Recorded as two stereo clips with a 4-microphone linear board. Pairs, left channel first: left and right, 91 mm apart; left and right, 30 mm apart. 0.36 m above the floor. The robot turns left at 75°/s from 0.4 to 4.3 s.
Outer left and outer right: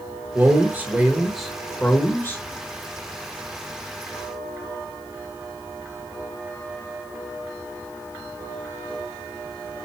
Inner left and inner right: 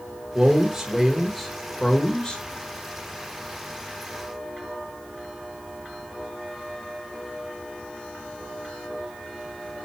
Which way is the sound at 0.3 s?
25° right (ahead or behind).